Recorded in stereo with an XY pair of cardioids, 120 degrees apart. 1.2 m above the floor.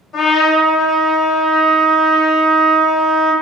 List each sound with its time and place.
0.1 s a trumpet: 50° left, 0.8 m